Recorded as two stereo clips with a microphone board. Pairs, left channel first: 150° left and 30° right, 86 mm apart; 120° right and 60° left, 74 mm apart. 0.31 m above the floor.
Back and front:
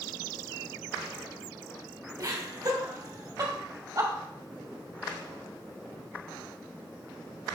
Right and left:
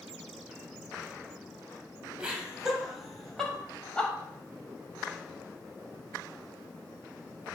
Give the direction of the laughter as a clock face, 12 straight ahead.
1 o'clock.